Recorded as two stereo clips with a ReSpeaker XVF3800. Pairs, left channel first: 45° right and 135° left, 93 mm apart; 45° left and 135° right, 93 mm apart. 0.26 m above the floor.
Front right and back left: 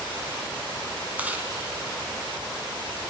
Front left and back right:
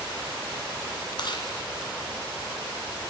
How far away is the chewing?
About 1.9 m.